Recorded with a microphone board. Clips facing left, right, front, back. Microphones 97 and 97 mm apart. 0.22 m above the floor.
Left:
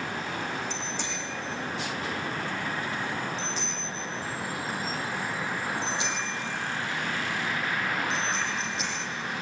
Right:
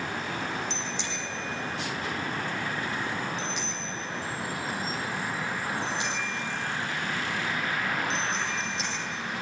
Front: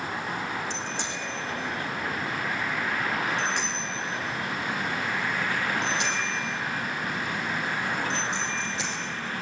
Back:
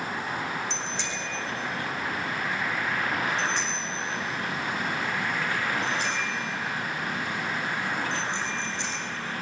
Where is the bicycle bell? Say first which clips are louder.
Even, even; 45° left, 8 m; by 9.1 s straight ahead, 5.5 m.